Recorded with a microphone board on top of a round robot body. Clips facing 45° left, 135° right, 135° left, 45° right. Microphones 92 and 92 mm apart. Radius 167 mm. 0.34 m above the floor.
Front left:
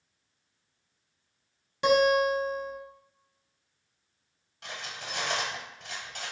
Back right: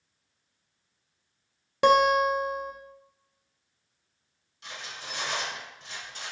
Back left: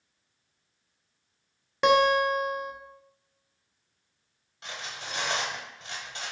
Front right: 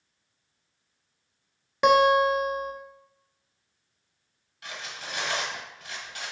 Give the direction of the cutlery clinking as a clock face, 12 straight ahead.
10 o'clock.